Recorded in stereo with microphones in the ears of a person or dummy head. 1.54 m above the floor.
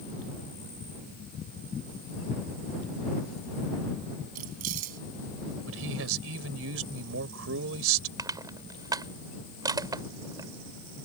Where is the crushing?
20° right (ahead or behind).